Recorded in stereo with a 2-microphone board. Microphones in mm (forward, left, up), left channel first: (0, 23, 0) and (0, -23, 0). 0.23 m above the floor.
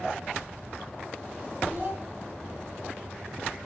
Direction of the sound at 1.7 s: 40° right (ahead or behind).